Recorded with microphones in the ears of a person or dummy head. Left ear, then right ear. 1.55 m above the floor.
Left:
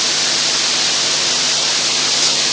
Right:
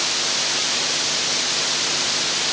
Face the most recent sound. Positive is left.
No sound to turn to.